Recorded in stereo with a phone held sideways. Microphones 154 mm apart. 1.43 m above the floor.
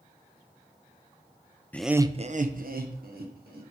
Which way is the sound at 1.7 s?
10° left (ahead or behind).